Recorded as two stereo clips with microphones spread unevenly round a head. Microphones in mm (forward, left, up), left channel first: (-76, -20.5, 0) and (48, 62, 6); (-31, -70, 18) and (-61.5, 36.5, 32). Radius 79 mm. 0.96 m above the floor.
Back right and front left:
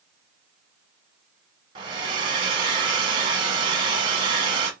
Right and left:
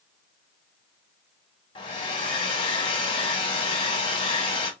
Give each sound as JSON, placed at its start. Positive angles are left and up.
{"t": 1.8, "sound": "a hair dryer", "azimuth_deg": -30, "distance_m": 1.0}